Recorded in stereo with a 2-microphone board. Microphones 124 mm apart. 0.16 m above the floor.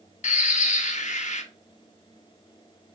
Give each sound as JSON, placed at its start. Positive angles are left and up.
{"t": 0.2, "sound": "a bird", "side_deg": 80, "distance_m": 0.6}